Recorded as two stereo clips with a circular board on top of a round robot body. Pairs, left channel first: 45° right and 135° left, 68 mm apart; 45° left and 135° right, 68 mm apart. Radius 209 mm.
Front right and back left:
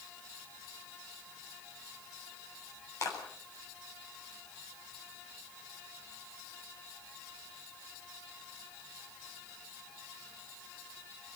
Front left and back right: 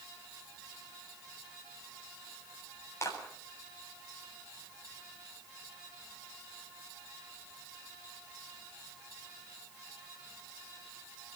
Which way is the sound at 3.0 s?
5° right.